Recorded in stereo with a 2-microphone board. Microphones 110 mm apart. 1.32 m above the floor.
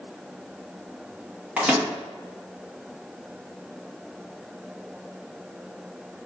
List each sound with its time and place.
1.6 s a microwave: 10° right (ahead or behind), 1.1 m